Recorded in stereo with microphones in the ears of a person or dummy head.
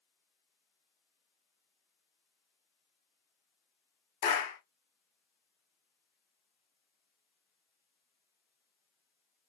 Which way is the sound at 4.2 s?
60° left (ahead or behind).